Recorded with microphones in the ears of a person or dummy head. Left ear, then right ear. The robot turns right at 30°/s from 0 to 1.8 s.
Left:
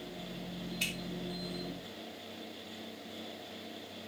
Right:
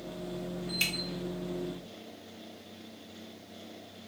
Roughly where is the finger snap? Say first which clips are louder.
Right 5 dB; right.